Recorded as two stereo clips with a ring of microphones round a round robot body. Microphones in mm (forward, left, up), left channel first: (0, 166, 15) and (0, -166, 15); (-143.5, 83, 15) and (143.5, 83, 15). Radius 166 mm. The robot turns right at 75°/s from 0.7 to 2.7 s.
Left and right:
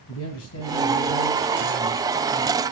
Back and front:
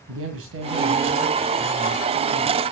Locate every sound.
0.1 s a man speaking: 40° left, 3 m; by 2.6 s 175° right, 3 m